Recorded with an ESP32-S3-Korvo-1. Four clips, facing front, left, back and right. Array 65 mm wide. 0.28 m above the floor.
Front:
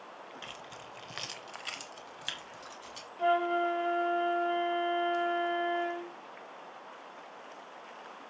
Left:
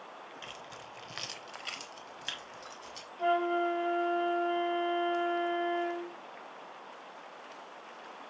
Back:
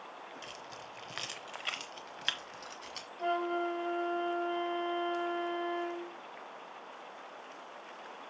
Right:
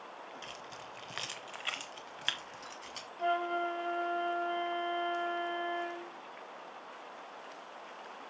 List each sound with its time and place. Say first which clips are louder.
0.4 s keys jangling: even, front 1 dB; 30° left, 1.0 m; by 3.1 s 140° right, 2.0 m
3.2 s a flute: left 4 dB, front 5 dB; 20° left, 0.6 m